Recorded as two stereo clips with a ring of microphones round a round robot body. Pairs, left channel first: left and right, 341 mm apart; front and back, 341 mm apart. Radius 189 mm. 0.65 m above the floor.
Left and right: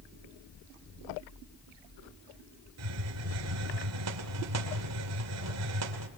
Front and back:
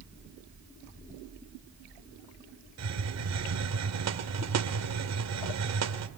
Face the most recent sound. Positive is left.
turn(degrees=-140)